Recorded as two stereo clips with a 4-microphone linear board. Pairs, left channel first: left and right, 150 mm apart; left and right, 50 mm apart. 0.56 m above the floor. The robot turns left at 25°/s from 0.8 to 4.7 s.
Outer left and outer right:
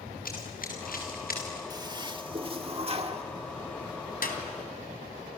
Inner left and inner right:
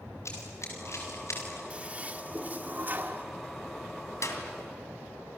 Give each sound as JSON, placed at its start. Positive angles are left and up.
{"t": 0.2, "sound": "running footsteps", "side_deg": 70, "distance_m": 5.5}
{"t": 1.7, "sound": "a toilet flushing", "azimuth_deg": -40, "distance_m": 1.4}
{"t": 4.2, "sound": "a clap", "side_deg": 75, "distance_m": 3.0}